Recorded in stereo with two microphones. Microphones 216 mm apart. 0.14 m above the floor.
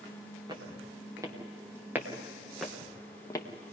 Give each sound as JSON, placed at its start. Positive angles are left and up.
{"t": 0.5, "sound": "footsteps", "side_deg": -20, "distance_m": 4.5}